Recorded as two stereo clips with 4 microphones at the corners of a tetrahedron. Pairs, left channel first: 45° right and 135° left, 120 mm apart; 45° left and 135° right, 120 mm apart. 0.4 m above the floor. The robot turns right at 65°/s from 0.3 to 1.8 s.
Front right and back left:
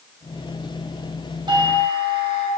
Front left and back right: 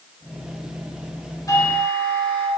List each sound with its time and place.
1.5 s a doorbell: 100° left, 3 m; by 2.5 s 120° left, 3 m